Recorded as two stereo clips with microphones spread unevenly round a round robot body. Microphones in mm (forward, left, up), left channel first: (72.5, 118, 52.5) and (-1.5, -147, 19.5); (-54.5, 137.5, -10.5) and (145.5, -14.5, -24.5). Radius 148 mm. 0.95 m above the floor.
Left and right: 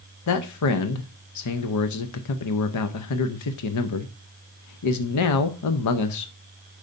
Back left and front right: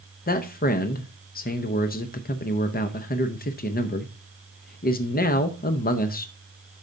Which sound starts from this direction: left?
A man speaking, at 0.3 s.